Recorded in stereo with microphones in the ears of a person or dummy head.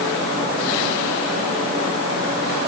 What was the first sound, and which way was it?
Only background noise.